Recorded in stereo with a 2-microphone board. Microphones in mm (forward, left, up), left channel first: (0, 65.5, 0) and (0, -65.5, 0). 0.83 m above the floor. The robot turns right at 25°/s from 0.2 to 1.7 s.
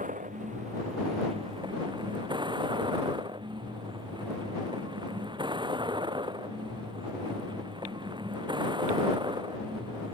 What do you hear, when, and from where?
0.0 s a vehicle: 75° right; by 10.2 s 35° right